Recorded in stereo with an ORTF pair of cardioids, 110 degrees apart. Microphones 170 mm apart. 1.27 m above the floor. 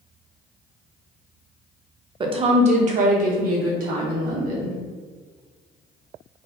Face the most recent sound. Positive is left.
turn(degrees=-60)